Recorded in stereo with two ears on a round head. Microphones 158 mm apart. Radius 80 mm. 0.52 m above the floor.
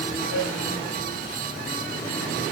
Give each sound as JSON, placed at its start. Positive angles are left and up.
{"t": 0.3, "sound": "a flute", "side_deg": 80, "distance_m": 3.0}